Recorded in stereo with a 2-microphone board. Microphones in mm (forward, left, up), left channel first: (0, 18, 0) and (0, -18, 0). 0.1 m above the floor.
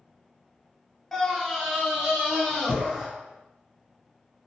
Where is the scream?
5° left (ahead or behind), 1.2 m; by 3.1 s 15° right (ahead or behind), 2.5 m.